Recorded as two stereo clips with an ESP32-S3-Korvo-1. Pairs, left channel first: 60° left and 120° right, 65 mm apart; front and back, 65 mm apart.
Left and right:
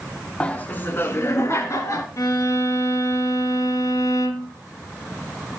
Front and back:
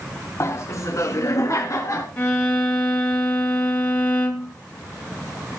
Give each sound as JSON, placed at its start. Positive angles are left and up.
{"t": 0.4, "sound": "laughter", "azimuth_deg": -5, "distance_m": 1.3}
{"t": 2.2, "sound": "a violin", "azimuth_deg": 60, "distance_m": 3.0}